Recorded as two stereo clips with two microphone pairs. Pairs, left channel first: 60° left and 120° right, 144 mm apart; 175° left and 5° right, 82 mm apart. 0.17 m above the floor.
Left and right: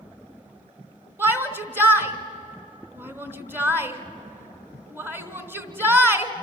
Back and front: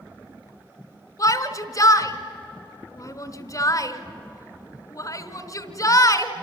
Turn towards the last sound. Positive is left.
turn(degrees=170)